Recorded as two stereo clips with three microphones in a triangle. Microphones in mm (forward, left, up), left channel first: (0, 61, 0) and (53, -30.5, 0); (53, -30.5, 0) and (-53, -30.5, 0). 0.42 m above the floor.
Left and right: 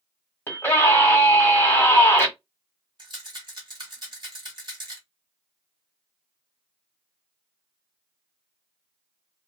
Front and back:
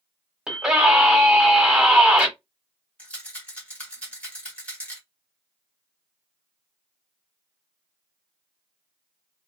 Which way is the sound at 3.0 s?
75° right.